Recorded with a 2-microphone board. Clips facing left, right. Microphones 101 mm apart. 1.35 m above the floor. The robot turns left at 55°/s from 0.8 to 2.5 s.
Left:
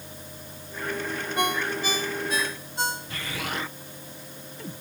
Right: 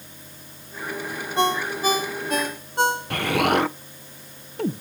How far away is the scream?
No scream in this recording.